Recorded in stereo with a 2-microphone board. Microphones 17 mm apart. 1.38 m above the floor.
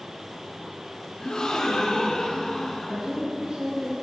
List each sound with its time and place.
1.2 s a gasp: 70° left (ahead or behind), 3.5 m
2.9 s a woman speaking: 70° right (ahead or behind), 5 m